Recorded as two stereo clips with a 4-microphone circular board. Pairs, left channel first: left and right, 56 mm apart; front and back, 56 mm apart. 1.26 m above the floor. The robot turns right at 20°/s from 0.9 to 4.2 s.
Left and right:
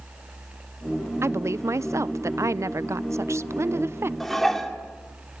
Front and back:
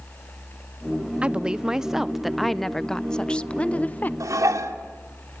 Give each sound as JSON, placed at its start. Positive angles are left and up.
{"t": 1.2, "sound": "a woman speaking", "azimuth_deg": -115, "distance_m": 0.5}
{"t": 4.2, "sound": "dishes clattering", "azimuth_deg": 175, "distance_m": 2.5}